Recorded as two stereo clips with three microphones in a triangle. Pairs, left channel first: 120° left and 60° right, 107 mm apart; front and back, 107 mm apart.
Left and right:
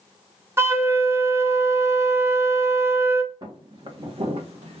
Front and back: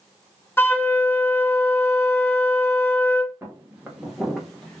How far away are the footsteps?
About 1.5 m.